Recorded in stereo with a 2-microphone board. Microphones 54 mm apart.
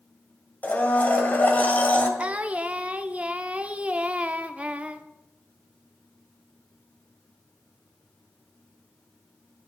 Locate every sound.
0.6 s a blender: 35° left (ahead or behind), 2 m
2.2 s singing: 25° right (ahead or behind), 0.7 m